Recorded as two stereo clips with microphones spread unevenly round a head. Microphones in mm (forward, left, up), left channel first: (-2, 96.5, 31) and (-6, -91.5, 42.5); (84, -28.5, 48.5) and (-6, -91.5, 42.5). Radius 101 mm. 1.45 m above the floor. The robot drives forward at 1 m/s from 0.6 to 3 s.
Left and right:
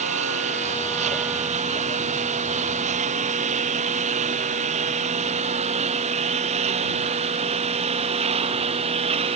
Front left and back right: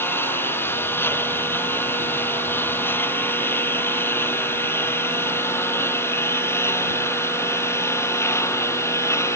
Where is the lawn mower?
35° right; by 9.4 s 30° right.